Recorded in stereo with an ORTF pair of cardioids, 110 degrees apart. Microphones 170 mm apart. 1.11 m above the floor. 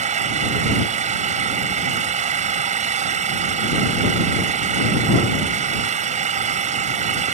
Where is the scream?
I don't hear a scream.